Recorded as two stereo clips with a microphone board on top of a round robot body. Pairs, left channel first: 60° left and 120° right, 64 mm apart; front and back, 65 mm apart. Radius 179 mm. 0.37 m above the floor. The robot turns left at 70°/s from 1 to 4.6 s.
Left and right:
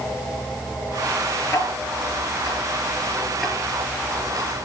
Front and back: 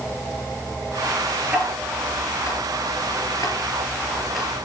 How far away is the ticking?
About 5.5 m.